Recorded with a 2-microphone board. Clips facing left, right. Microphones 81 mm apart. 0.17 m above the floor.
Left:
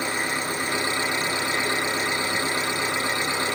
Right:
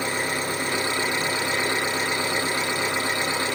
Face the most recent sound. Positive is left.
turn(degrees=15)  # may be behind; listen again after turning